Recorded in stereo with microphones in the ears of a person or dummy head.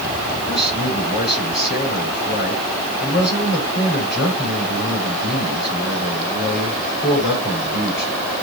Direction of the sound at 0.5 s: 50° left (ahead or behind).